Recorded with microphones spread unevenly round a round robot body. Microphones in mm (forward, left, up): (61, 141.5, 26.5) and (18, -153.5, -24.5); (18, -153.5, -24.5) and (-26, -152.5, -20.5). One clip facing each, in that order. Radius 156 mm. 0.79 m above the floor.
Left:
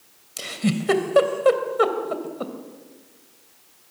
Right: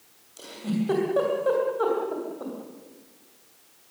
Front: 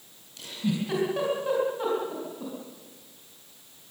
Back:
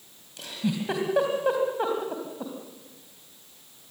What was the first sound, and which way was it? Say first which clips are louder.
A giggle: left 4 dB, even; 105° left.